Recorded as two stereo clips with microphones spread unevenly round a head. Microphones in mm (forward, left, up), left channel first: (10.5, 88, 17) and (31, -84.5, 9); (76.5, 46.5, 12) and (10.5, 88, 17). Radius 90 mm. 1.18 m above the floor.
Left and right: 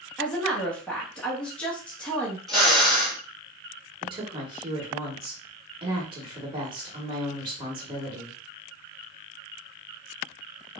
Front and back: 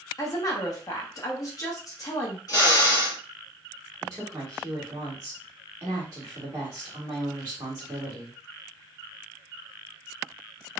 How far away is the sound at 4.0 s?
About 1.3 m.